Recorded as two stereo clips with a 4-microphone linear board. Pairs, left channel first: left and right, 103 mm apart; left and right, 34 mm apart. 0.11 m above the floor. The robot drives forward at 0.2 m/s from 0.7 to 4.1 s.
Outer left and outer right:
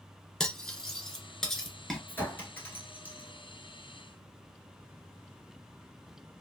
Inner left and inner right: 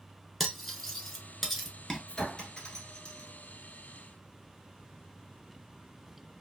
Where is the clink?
20° left (ahead or behind), 1.2 m.